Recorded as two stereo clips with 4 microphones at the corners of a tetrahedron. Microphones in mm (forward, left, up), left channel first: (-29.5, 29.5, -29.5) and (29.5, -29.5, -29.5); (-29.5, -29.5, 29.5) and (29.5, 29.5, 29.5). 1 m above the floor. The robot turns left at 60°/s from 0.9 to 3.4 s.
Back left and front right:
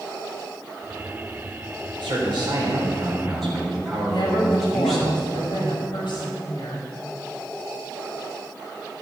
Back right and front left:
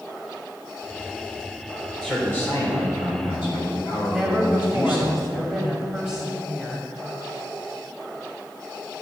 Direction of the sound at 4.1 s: 140° left.